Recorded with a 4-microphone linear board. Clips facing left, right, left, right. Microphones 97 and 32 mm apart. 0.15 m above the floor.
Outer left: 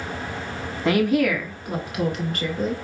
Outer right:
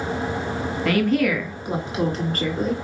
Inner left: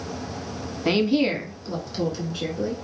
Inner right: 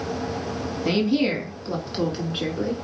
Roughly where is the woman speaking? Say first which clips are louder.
Outer left 1 dB, inner left 1 dB; left.